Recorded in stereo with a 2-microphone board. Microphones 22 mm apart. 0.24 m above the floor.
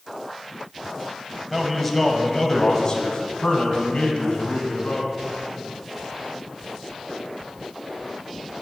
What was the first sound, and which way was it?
A man speaking, 5° right (ahead or behind).